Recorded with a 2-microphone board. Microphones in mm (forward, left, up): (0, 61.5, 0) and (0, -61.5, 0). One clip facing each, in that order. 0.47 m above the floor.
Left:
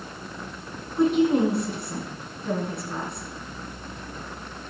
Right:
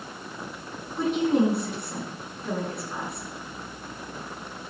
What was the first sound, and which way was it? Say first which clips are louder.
A woman speaking: left 3 dB; centre (ahead or behind).